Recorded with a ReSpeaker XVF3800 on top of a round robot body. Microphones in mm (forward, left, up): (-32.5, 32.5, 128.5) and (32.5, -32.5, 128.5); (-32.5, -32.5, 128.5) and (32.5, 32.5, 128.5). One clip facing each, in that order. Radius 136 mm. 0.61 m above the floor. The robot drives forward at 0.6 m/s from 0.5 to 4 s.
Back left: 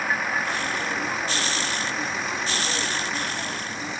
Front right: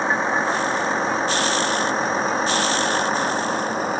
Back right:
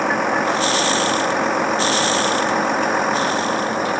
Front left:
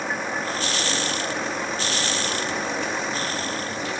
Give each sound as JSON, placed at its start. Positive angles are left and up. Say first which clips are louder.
{"t": 0.0, "sound": "a vehicle", "louder": "front right 5 dB, back right 9 dB", "azimuth_deg": -110}